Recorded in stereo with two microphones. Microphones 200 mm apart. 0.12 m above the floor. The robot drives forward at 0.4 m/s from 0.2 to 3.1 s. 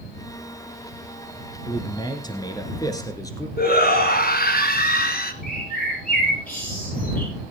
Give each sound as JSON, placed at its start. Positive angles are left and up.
{"t": 1.7, "sound": "a man speaking", "side_deg": 20, "distance_m": 1.3}
{"t": 3.6, "sound": "a shout", "side_deg": 50, "distance_m": 1.6}
{"t": 5.4, "sound": "a bird", "side_deg": 45, "distance_m": 6.5}